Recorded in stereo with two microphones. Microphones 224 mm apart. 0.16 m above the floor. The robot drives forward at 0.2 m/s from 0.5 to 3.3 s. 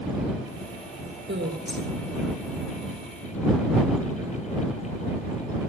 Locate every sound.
1.3 s a woman speaking: 55° right (ahead or behind), 3 m